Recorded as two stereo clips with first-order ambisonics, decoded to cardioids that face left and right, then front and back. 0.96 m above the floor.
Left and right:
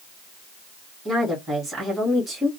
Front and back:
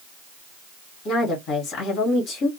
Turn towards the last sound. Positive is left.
turn(degrees=-20)